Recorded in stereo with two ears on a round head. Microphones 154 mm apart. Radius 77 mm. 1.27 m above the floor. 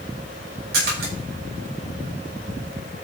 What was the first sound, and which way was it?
A splash, 65° right (ahead or behind).